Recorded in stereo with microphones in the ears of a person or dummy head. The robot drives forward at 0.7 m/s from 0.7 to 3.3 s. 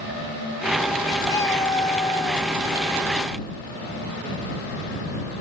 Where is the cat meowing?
20° left (ahead or behind).